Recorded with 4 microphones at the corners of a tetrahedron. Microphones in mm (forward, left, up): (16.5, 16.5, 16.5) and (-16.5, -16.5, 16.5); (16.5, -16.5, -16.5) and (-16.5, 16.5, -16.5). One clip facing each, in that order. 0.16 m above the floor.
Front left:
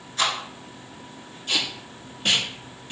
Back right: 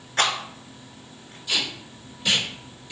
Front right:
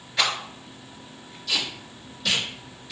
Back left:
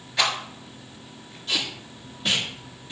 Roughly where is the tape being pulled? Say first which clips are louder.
Even, even; left.